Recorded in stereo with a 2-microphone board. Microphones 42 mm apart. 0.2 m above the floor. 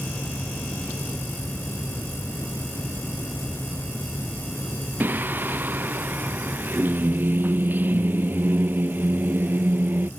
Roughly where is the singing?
Right.